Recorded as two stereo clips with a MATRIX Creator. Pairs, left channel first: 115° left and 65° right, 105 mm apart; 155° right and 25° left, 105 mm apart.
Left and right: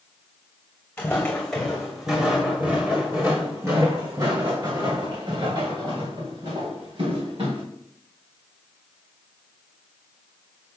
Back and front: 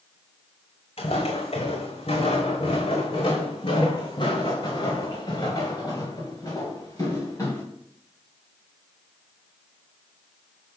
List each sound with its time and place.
1.0 s footsteps: 170° right, 2 m; by 7.6 s 95° right, 4 m